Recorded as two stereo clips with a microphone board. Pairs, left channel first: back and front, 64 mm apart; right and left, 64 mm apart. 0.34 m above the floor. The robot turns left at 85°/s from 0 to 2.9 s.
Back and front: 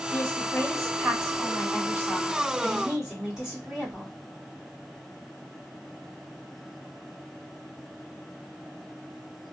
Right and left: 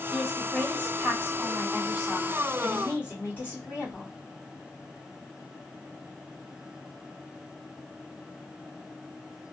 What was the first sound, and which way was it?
A woman speaking, 165° left.